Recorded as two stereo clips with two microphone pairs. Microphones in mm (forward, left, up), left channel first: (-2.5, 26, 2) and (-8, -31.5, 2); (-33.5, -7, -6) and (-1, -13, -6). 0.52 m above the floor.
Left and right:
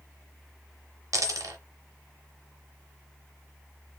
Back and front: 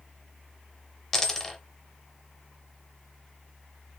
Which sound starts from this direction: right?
A dropped coin, at 1.1 s.